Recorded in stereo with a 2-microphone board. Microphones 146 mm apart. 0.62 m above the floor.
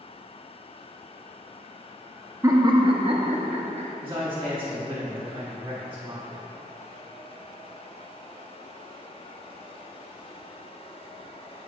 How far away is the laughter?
About 0.5 m.